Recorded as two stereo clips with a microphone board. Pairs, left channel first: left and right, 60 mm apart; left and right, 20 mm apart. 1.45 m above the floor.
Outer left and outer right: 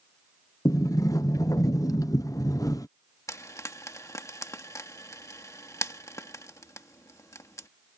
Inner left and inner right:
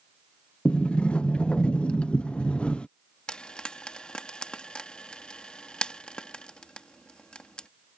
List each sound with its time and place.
0.7 s a sliding door: 65° left (ahead or behind)
3.3 s frying: 55° left (ahead or behind)